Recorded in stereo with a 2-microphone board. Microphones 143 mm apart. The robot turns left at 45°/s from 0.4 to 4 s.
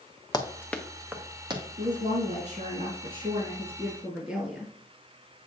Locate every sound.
0.3 s running footsteps: 25° left (ahead or behind), 1.0 m; by 1.6 s 35° right (ahead or behind), 1.6 m
1.8 s a woman speaking: 70° right, 2.5 m; by 4.7 s 175° right, 2.5 m